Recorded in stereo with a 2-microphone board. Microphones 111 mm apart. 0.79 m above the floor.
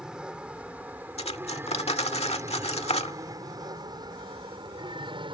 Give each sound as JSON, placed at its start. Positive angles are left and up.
{"t": 0.0, "sound": "an aircraft", "side_deg": -5}
{"t": 1.2, "sound": "cutlery clinking", "side_deg": 70}